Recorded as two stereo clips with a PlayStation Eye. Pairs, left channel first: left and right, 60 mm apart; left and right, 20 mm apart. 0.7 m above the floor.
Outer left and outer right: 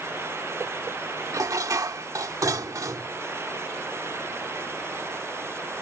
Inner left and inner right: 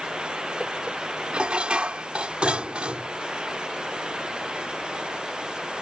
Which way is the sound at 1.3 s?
65° right (ahead or behind).